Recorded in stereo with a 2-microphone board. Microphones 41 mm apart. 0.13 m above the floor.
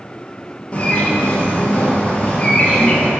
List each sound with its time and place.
0.7 s a bird: 25° left (ahead or behind), 2 m